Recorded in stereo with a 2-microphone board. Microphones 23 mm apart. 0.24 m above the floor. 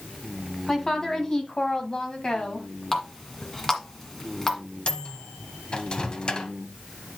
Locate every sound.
0.7 s a woman speaking: 15° left (ahead or behind), 1.8 m; by 2.7 s 40° left (ahead or behind), 1.7 m
2.9 s a running tap: 20° left (ahead or behind), 1.7 m
4.9 s a microwave: 40° left (ahead or behind), 0.9 m